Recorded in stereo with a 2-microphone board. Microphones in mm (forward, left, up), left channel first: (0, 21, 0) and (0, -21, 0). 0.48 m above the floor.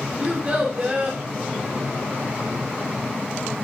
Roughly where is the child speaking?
Right.